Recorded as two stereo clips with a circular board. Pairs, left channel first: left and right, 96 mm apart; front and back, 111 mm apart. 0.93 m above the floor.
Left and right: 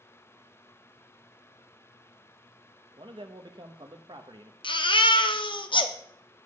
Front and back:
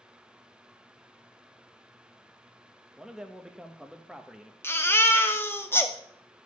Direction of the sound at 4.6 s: 70° left.